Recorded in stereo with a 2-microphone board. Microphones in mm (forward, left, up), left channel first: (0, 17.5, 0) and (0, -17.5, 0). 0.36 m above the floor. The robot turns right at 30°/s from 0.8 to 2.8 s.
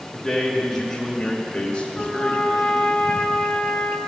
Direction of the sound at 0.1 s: 10° left (ahead or behind).